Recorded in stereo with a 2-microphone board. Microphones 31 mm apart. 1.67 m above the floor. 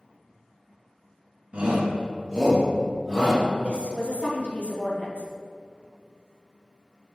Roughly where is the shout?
Right.